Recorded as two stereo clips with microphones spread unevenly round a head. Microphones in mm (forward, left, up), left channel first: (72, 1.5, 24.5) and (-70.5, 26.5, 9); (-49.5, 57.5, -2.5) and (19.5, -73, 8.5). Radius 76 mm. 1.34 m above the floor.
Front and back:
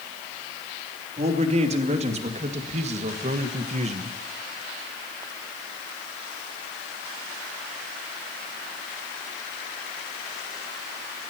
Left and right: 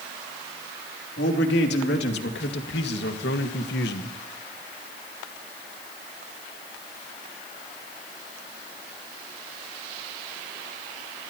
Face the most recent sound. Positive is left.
turn(degrees=130)